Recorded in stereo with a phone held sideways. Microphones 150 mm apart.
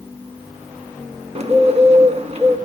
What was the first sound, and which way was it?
A bird, 45° right (ahead or behind).